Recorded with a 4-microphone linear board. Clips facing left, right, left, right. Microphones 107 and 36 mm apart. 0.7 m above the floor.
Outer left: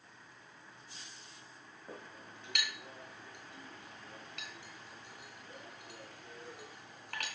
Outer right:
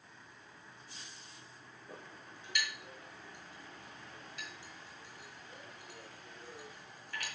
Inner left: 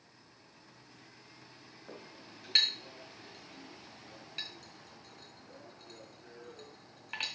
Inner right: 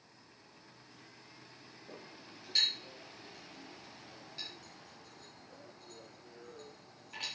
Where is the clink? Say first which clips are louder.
Outer left 2 dB, inner left 2 dB; 65° left (ahead or behind), 3.5 m.